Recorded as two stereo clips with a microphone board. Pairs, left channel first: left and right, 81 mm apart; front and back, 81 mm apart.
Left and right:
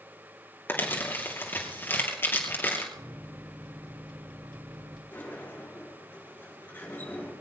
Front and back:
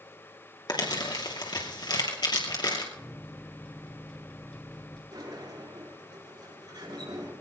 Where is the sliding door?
155° left, 6 m.